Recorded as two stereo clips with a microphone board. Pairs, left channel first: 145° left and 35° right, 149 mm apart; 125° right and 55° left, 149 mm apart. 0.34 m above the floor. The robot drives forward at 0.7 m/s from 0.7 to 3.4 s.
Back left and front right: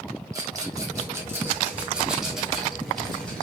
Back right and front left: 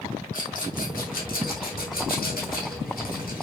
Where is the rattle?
100° right, 3 m; by 3.4 s 130° right, 4 m.